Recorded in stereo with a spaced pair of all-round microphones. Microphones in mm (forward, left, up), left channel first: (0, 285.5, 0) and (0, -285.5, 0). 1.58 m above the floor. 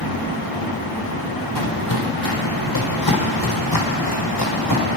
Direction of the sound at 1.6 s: 35° left (ahead or behind).